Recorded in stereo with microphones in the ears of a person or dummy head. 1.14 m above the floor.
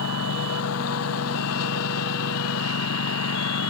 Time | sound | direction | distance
0.0 | a lawn mower | 85° left | ?